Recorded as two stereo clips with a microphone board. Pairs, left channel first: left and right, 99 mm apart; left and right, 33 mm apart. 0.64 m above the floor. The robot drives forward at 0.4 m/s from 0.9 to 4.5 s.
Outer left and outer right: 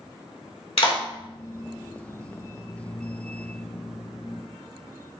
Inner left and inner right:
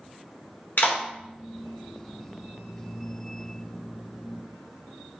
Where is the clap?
70° left (ahead or behind), 1.4 m.